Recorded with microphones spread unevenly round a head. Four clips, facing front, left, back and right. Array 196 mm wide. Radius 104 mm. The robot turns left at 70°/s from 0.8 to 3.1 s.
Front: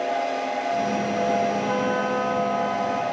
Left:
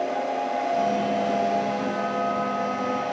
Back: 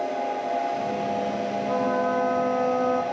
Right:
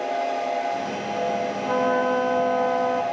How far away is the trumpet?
About 2.5 m.